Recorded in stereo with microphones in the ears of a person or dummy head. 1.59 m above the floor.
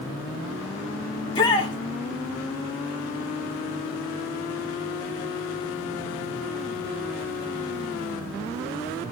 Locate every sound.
1.2 s a shout: 20° left (ahead or behind), 3 m